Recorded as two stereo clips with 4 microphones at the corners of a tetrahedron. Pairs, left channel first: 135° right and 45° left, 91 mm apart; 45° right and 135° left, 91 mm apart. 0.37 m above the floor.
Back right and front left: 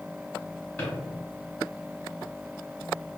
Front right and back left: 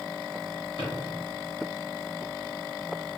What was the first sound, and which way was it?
A drawer, 60° right.